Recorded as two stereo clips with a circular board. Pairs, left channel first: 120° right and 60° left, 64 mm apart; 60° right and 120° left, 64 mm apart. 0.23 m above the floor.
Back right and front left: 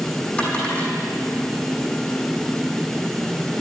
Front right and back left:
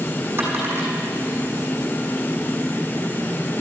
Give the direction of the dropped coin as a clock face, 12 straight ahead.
6 o'clock.